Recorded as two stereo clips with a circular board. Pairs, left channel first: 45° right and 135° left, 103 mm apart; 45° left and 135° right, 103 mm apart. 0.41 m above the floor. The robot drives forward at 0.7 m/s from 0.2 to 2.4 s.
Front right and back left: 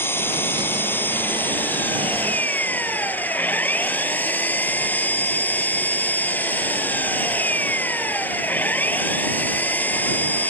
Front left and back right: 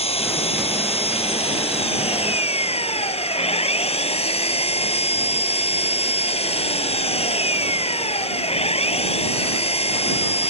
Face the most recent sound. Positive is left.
turn(degrees=30)